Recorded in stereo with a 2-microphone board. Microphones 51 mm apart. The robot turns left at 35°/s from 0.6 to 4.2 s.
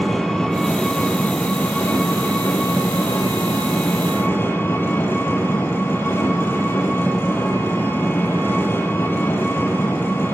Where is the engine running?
170° left, 5.5 m; by 10.3 s 45° left, 5.5 m.